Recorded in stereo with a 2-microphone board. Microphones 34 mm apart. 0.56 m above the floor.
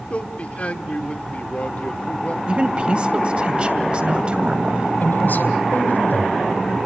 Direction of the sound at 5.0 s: 65° left (ahead or behind).